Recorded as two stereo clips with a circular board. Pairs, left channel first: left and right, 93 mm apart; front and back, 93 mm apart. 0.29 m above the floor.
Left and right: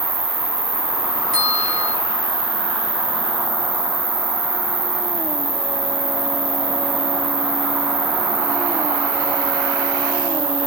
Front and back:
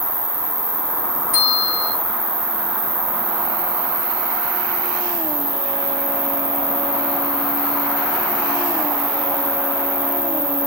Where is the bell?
165° right, 1.6 m.